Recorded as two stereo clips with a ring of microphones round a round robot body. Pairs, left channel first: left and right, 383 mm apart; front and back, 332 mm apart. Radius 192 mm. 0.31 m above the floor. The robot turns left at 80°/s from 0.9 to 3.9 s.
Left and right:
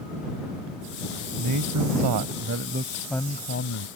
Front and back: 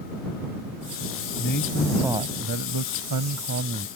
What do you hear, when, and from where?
1.4 s a man speaking: 45° right; by 3.9 s 120° left